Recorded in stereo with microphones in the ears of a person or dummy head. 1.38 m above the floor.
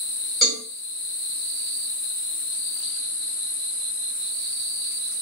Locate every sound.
0.4 s a cowbell: centre (ahead or behind), 2 m